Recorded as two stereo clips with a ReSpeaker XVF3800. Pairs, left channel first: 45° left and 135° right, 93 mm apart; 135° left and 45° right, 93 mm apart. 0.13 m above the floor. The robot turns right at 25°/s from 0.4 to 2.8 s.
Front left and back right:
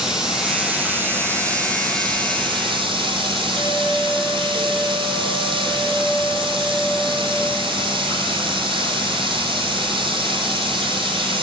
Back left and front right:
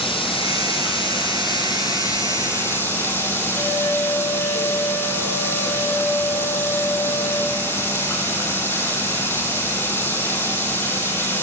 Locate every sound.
0.0 s running water: 140° left, 3 m; by 11.4 s 160° right, 3 m
3.5 s a flute: 35° right, 5 m